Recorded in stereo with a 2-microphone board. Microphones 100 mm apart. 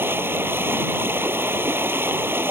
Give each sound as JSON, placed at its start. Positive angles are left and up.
{"t": 0.0, "sound": "running water", "side_deg": -20}